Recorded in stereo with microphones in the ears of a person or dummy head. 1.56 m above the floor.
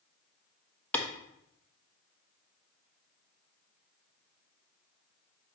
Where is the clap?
10° left (ahead or behind), 1.2 m.